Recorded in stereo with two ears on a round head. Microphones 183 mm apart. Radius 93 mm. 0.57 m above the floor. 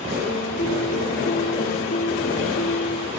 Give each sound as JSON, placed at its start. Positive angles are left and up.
{"t": 0.2, "sound": "a piano", "side_deg": 40}